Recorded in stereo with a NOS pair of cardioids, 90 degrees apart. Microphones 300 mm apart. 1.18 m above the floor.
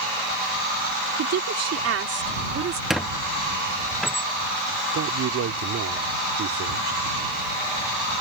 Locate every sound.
1.2 s a woman speaking: 65° right; by 2.8 s 45° right
2.9 s a squeak: straight ahead
4.9 s a man speaking: 60° right